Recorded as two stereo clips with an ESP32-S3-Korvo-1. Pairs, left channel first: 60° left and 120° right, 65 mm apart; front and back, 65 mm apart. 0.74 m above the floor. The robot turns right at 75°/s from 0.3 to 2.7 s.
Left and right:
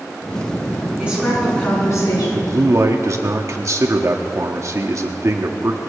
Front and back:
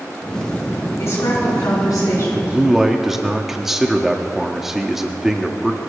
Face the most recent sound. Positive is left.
turn(degrees=-95)